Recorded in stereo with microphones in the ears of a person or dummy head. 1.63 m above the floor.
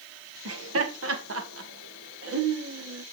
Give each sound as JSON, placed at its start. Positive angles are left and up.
{"t": 0.5, "sound": "laughter", "side_deg": -80, "distance_m": 1.9}